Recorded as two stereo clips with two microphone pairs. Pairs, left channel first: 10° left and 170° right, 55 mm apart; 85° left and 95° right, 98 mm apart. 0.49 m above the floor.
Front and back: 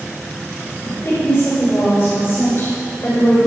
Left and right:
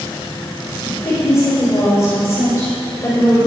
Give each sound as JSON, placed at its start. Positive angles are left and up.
{"t": 0.8, "sound": "a woman speaking", "azimuth_deg": 35, "distance_m": 2.5}